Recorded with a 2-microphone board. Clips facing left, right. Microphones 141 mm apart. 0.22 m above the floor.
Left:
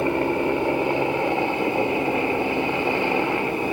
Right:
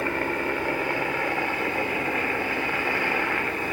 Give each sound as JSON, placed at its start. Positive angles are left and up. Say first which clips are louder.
{"t": 0.0, "sound": "a helicopter", "louder": "left 6 dB", "side_deg": 20}